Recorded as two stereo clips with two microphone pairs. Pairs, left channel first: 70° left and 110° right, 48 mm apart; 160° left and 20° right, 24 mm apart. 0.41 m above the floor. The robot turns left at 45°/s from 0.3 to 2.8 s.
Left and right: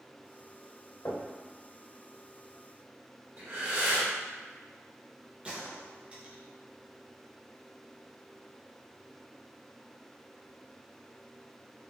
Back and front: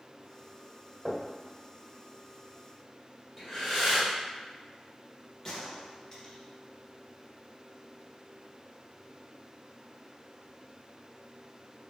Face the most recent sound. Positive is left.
turn(degrees=-150)